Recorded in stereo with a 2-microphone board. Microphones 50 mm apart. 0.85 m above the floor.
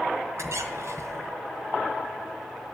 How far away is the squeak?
About 1.7 m.